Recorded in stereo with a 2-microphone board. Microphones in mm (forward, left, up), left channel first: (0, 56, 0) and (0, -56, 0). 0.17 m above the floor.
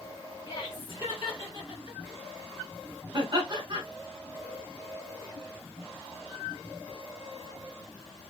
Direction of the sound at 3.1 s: 40° right (ahead or behind).